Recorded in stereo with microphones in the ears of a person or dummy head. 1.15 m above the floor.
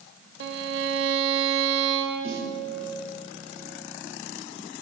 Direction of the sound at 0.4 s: 75° right (ahead or behind).